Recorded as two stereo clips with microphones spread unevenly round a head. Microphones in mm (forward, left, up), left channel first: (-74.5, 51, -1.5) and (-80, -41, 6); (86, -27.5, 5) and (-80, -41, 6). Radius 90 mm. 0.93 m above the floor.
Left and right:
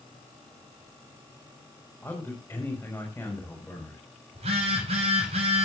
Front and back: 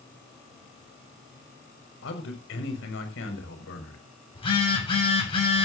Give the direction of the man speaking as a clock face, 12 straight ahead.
12 o'clock.